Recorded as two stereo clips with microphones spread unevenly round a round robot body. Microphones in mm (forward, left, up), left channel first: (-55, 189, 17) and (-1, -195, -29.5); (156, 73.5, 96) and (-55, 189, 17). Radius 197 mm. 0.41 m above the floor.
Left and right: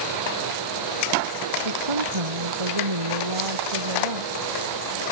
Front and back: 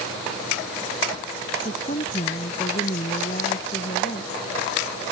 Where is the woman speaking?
100° right.